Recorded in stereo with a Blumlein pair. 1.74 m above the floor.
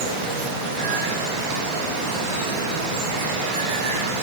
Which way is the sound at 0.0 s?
45° right.